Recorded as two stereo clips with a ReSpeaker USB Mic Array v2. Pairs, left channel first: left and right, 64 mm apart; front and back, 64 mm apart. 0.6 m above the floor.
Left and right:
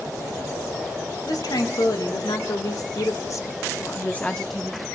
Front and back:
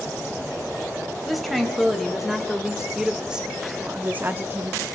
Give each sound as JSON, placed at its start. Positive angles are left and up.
{"t": 1.2, "sound": "a woman speaking", "azimuth_deg": 90, "distance_m": 3.0}